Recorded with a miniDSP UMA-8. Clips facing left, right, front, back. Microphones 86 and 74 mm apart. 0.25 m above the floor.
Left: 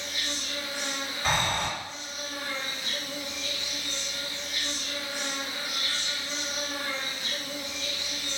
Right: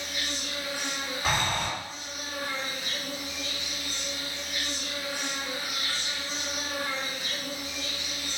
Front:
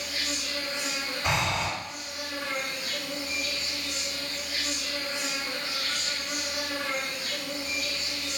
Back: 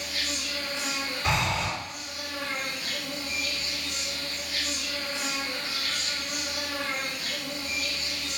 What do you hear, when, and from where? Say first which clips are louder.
0.0 s an insect: right 1 dB, even; 65° right, 1.2 m
1.2 s breathing: left 1 dB, even; 15° right, 1.7 m